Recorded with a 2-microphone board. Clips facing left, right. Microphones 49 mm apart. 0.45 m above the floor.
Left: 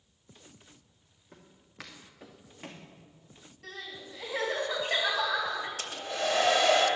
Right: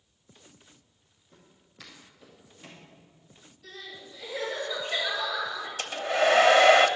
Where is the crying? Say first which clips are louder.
Left 1 dB; 65° left (ahead or behind), 3 m.